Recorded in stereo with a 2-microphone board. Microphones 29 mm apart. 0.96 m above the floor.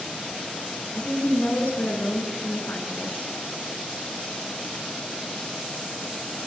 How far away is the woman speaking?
About 9.5 m.